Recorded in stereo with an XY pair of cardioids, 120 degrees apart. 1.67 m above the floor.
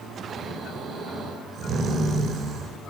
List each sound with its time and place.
0.3 s snoring: 45° right, 8.5 m